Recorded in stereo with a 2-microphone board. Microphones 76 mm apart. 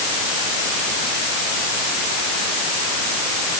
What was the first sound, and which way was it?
Only background noise.